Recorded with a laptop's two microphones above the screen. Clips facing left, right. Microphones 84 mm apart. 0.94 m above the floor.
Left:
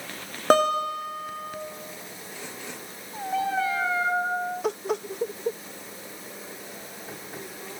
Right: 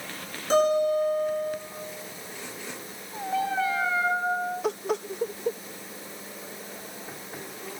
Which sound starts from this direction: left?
A guitar, at 0.5 s.